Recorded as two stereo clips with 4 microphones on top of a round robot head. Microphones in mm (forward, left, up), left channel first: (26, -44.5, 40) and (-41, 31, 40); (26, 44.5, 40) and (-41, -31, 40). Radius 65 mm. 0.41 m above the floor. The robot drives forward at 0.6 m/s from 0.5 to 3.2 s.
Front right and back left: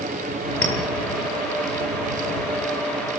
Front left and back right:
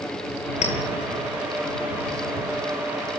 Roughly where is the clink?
Ahead left.